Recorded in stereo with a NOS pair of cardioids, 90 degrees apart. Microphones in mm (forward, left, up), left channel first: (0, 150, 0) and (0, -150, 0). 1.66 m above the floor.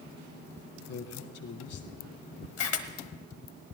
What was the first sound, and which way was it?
A man speaking, 55° left.